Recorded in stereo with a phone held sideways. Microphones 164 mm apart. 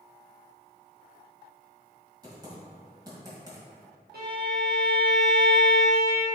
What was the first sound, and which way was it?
Typing on a keyboard, 25° right (ahead or behind).